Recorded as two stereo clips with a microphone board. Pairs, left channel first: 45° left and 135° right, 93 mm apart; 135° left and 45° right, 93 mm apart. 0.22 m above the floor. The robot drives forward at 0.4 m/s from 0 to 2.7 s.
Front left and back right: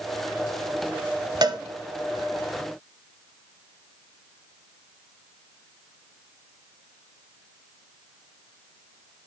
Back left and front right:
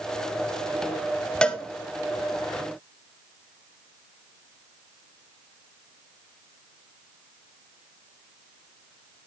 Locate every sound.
1.4 s a cowbell: 150° right, 1.0 m